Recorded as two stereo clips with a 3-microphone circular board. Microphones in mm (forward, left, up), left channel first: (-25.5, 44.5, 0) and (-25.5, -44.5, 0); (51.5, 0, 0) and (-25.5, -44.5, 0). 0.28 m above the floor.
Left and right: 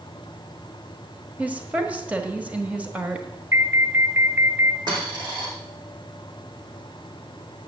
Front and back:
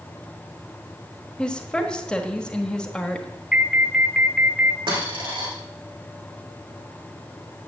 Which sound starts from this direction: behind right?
A dropped coin, at 4.9 s.